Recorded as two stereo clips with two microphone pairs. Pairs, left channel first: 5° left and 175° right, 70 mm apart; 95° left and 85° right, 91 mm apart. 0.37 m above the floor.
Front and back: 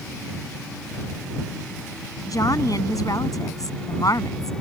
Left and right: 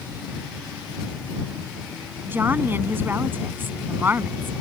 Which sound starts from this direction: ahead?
A woman speaking, at 2.3 s.